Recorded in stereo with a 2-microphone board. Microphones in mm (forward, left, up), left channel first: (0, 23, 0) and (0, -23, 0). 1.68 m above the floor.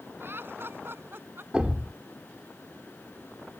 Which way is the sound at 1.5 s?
25° right (ahead or behind).